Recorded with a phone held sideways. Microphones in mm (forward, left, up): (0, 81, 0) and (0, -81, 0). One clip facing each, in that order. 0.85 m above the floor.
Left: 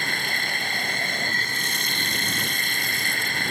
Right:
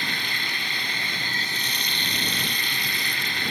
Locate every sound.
0.0 s running water: 50° left (ahead or behind)